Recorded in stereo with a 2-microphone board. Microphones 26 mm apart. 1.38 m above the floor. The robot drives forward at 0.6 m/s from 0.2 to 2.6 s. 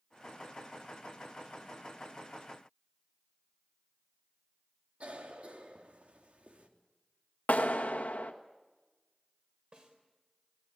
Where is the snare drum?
40° right (ahead or behind), 3.5 m.